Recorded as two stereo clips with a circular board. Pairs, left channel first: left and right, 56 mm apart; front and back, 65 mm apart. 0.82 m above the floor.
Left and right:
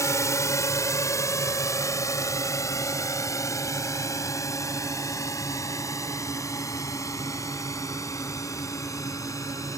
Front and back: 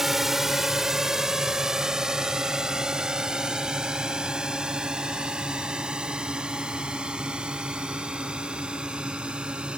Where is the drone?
95° left; by 9.8 s 105° left.